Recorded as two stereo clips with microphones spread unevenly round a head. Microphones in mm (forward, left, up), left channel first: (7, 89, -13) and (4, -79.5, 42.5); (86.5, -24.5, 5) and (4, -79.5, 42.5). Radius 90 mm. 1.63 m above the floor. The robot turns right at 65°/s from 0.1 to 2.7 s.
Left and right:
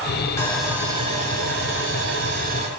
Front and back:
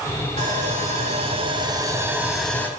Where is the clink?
No clink in this recording.